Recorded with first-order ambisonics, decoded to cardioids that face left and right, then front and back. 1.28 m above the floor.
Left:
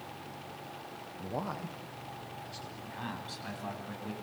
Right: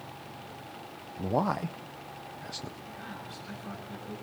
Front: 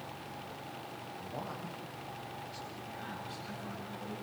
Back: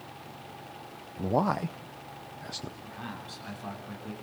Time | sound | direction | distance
1.2 | a man speaking | 150° right | 0.6 m
2.8 | a man speaking | 115° left | 9 m